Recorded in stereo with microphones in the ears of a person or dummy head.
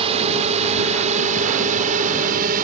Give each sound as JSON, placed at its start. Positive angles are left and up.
{"t": 0.0, "sound": "a drone", "side_deg": -25}